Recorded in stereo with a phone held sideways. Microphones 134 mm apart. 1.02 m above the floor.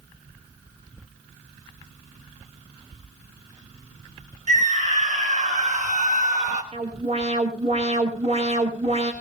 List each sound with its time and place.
4.5 s a scream: 75° right (ahead or behind), 5.5 m; by 6.6 s 65° right (ahead or behind), 4 m
6.7 s an alarm: 55° right (ahead or behind), 4 m